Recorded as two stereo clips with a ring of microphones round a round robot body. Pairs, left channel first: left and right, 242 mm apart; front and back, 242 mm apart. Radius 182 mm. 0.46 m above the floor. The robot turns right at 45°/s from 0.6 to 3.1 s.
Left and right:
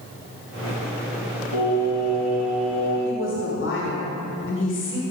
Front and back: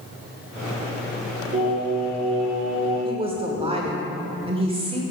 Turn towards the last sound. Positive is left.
turn(degrees=115)